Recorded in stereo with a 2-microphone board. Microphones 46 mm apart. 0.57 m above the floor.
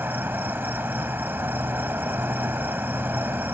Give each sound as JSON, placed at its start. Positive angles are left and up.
{"t": 0.0, "sound": "an insect", "side_deg": -55}